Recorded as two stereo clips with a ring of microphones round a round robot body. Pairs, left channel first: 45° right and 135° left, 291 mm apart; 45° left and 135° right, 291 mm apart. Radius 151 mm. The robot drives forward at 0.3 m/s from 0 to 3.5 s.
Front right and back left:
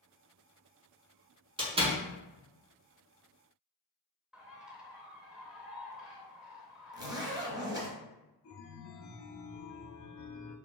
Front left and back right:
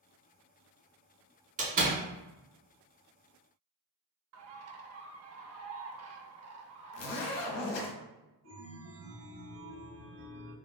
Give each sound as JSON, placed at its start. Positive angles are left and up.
{"t": 1.6, "sound": "a door slam", "azimuth_deg": -170, "distance_m": 1.0}
{"t": 4.3, "sound": "a bird", "azimuth_deg": -140, "distance_m": 0.5}
{"t": 6.9, "sound": "a zipper", "azimuth_deg": 60, "distance_m": 0.7}
{"t": 8.4, "sound": "a chime", "azimuth_deg": -90, "distance_m": 0.7}